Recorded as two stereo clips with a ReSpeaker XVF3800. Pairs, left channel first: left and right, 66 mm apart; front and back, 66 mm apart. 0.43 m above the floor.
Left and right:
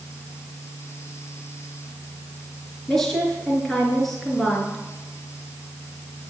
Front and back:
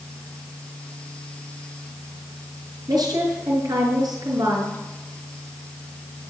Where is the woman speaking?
170° left, 5.5 m.